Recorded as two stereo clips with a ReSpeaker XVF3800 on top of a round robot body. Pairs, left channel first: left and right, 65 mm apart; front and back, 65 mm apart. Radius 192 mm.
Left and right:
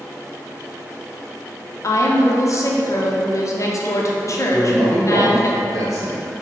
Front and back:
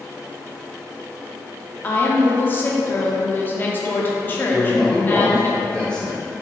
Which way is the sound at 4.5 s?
75° right.